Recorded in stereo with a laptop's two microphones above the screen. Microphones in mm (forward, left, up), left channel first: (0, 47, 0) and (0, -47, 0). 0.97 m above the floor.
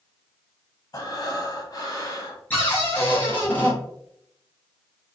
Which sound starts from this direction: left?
Breathing, at 0.9 s.